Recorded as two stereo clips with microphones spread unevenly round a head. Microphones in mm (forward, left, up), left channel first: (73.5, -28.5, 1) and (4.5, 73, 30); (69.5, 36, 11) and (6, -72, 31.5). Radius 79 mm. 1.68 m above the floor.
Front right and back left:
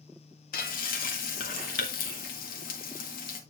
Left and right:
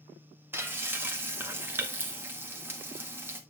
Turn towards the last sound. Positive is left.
turn(degrees=-55)